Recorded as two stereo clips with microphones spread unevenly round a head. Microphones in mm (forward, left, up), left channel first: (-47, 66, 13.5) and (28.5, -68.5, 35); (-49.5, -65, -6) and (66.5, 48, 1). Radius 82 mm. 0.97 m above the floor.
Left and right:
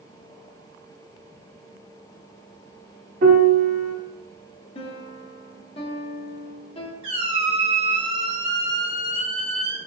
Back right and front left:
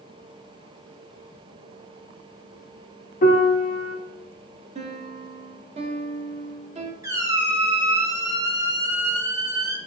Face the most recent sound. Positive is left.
turn(degrees=-20)